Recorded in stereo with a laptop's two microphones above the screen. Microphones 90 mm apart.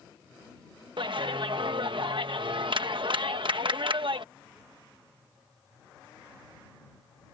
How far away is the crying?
No crying in this recording.